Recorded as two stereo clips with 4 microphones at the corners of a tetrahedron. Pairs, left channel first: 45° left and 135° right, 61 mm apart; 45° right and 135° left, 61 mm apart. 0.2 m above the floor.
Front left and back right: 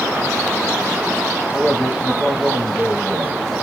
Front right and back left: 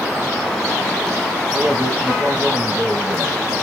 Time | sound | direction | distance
1.5 | a man speaking | 100° left | 1.0 m